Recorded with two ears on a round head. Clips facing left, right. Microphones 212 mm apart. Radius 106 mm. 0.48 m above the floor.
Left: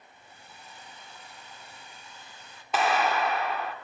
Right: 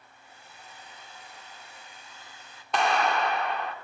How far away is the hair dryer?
About 1.0 m.